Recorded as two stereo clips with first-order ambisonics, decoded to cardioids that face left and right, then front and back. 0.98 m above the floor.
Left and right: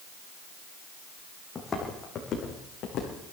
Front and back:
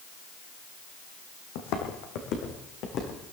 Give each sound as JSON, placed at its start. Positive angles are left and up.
{"t": 1.6, "sound": "footsteps", "azimuth_deg": 15, "distance_m": 2.5}